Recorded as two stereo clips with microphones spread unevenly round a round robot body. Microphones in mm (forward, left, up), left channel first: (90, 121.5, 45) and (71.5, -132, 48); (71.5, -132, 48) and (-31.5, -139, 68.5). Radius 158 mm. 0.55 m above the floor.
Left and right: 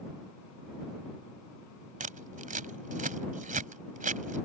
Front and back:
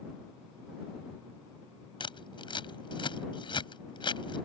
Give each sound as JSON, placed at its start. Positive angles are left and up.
{"t": 2.0, "sound": "scissors", "azimuth_deg": -35}